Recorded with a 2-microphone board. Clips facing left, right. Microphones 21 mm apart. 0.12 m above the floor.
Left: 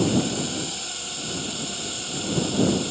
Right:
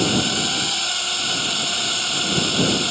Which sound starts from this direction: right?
A drone, at 0.0 s.